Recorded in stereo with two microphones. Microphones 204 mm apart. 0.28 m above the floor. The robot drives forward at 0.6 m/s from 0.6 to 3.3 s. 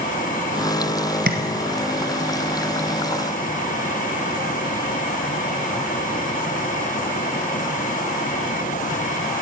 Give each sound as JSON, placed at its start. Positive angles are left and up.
{"t": 1.3, "sound": "tapping", "side_deg": -65, "distance_m": 1.4}